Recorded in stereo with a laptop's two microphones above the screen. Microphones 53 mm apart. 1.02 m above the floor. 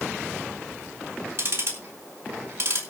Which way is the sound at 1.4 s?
55° right (ahead or behind).